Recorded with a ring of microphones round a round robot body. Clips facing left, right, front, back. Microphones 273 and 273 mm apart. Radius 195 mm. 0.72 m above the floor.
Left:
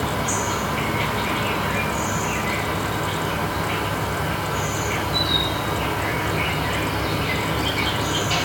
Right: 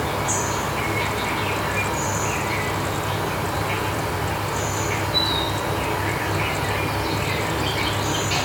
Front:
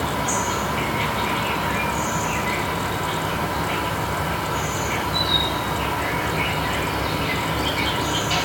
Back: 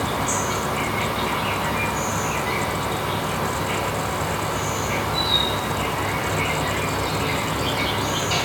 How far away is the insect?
About 2.5 m.